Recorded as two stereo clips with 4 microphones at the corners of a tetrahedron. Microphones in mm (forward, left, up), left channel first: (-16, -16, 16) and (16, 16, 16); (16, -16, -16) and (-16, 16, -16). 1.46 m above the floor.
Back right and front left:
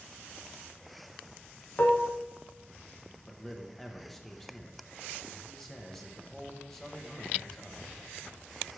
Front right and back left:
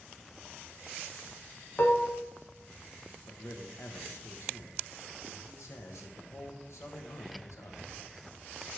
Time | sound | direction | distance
1.8 | dishes clattering | 90° right | 0.8 m
3.3 | a man speaking | 55° right | 1.3 m